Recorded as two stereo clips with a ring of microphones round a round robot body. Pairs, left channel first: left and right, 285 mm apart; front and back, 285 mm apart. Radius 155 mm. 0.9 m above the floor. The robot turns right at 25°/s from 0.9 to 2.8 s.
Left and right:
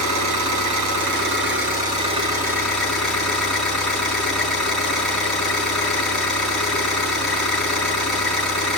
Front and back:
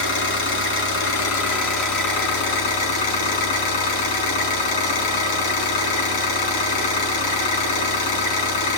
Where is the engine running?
45° right, 4.5 m; by 8.8 s straight ahead, 4.5 m.